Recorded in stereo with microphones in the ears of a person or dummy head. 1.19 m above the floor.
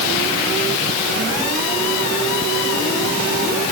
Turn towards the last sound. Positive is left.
No sound to turn to.